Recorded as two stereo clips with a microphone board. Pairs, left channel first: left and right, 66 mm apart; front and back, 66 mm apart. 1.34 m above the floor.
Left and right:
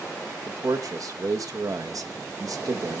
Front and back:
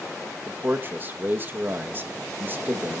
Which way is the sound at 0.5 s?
120° right.